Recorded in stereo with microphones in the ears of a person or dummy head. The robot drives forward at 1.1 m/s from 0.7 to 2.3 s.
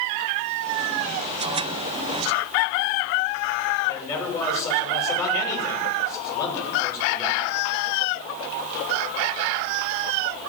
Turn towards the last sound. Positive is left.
turn(degrees=15)  # may be behind; listen again after turning